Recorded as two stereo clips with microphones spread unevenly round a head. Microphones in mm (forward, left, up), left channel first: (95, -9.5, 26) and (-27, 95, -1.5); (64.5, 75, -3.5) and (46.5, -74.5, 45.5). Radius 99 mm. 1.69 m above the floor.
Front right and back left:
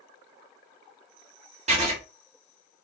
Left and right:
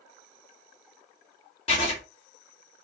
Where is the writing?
140° left, 1.3 m.